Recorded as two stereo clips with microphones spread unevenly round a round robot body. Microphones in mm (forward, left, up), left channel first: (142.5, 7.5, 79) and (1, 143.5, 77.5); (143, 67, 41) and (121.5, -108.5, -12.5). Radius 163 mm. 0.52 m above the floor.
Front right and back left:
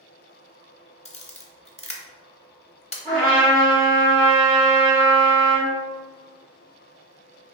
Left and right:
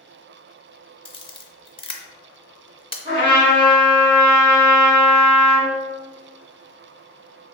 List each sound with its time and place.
1.1 s a camera shutter: 20° left, 0.6 m
3.0 s a trumpet: 125° right, 0.9 m